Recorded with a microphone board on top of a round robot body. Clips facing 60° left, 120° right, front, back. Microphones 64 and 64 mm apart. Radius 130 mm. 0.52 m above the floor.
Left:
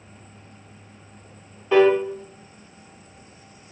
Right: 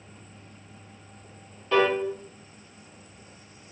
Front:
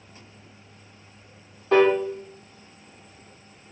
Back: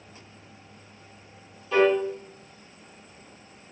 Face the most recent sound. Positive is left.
turn(degrees=-5)